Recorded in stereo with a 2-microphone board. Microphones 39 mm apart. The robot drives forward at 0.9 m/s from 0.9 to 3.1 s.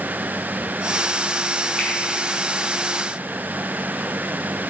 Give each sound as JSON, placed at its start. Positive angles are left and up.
{"t": 1.8, "sound": "a finger snap", "side_deg": 15, "distance_m": 5.0}